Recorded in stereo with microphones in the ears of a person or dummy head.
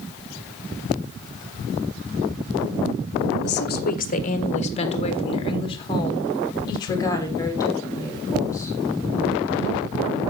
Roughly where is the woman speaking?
Left.